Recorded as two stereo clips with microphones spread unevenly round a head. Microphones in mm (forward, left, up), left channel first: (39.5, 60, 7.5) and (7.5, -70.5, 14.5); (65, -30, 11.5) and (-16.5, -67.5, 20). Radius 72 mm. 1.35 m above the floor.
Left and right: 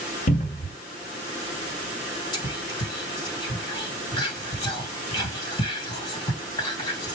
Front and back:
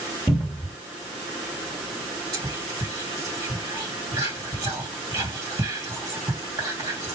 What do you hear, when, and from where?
0.3 s a cupboard door: 90° left, 1.4 m
2.3 s whispering: 140° left, 1.4 m